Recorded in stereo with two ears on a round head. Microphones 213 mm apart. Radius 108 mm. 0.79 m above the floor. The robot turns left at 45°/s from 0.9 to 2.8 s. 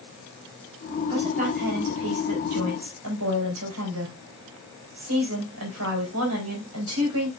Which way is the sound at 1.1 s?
25° right.